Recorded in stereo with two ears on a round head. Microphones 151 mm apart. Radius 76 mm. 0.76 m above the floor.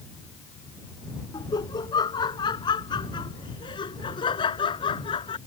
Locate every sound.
1.3 s laughter: 25° left (ahead or behind); by 5.4 s 30° left (ahead or behind)